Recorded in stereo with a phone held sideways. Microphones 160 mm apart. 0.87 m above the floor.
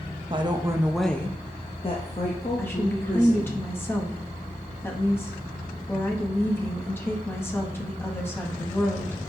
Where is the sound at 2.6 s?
15° left (ahead or behind), 0.9 m.